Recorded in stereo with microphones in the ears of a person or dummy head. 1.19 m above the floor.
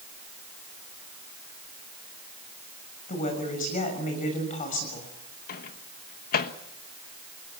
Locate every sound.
3.1 s a woman speaking: 45° left (ahead or behind), 6.5 m
5.5 s a microwave: 55° left (ahead or behind), 1.2 m